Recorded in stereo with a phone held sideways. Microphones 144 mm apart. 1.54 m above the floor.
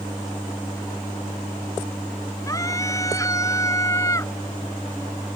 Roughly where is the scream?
Left.